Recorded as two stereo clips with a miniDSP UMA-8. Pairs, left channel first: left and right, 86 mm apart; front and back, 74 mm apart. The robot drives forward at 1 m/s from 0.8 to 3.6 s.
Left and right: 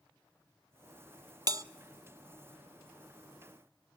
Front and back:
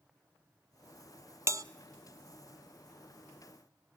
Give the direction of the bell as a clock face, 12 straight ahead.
4 o'clock.